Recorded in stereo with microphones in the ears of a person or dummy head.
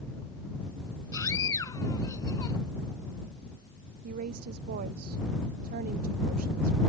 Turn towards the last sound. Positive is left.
turn(degrees=-50)  # may be behind; listen again after turning